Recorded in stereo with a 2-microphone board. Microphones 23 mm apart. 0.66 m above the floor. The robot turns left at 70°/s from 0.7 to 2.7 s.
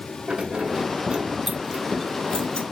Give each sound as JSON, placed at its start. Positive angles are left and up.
{"t": 0.3, "sound": "keys jangling", "side_deg": -60, "distance_m": 0.8}